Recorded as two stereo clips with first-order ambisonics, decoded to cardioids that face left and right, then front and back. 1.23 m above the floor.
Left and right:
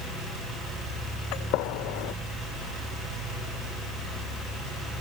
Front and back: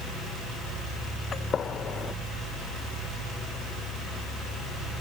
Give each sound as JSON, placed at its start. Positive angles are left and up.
{"t": 1.3, "sound": "a gunshot", "azimuth_deg": 65}